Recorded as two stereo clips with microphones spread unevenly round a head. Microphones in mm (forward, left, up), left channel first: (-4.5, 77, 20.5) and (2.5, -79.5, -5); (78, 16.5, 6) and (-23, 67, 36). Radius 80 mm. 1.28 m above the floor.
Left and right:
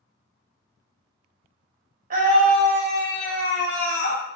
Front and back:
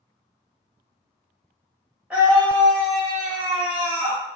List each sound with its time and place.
2.1 s a scream: 120° right, 1.3 m; by 4.2 s 115° left, 1.7 m